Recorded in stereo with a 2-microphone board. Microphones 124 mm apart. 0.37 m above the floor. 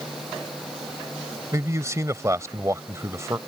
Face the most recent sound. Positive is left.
turn(degrees=-25)  # may be behind; listen again after turning